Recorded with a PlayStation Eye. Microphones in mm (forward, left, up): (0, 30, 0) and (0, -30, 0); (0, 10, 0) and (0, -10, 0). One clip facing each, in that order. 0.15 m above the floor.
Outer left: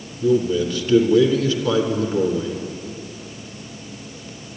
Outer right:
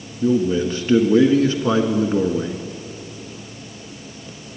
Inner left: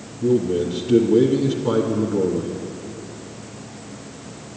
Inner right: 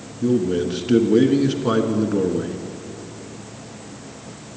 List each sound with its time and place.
0.2 s a man speaking: 35° right (ahead or behind), 1.5 m